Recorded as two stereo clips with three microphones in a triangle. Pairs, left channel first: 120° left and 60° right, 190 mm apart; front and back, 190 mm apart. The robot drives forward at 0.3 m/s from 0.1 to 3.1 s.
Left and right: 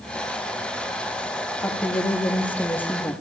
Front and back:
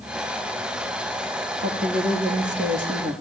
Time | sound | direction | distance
1.6 | a woman speaking | 160° right | 8.5 m